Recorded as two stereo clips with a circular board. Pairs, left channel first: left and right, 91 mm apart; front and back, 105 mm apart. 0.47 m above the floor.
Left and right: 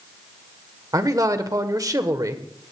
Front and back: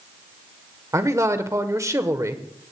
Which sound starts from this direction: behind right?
A man speaking, at 0.9 s.